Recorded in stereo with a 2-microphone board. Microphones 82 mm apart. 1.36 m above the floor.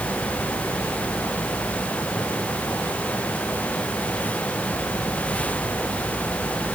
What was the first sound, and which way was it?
Only background noise.